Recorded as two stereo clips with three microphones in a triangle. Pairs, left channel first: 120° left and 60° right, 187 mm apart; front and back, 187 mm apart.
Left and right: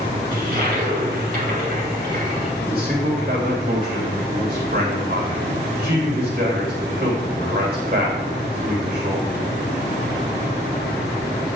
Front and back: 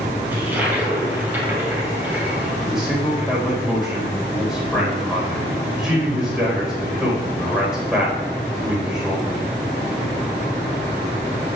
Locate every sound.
0.3 s a toilet flushing: 100° right, 3.5 m
2.6 s a man speaking: 95° right, 4 m